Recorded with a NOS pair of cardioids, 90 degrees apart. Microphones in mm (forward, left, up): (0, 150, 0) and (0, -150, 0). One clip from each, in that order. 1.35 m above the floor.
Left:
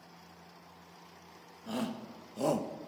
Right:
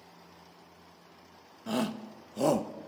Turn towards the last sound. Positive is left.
turn(degrees=-20)